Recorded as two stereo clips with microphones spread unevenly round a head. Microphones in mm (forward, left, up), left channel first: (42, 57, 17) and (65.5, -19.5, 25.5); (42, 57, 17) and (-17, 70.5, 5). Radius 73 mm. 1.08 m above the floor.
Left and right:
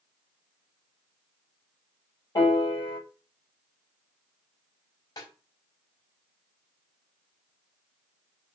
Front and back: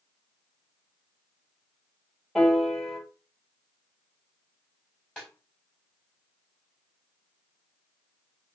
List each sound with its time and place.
2.4 s a piano: 75° left, 5.5 m
5.2 s a snare drum: 65° left, 3.5 m